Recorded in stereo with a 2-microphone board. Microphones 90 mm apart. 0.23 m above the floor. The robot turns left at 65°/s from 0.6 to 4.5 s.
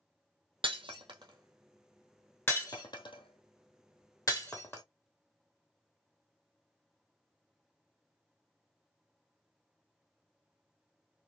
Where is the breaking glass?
85° right, 1.4 m; by 4.8 s 25° left (ahead or behind), 1.4 m.